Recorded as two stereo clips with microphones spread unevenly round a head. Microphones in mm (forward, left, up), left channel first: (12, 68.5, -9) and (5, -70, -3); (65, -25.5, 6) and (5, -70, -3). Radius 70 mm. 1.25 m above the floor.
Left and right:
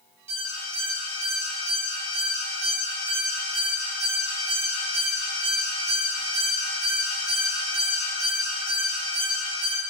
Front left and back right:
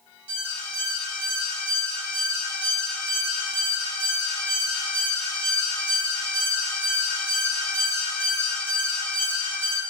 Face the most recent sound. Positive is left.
turn(degrees=-140)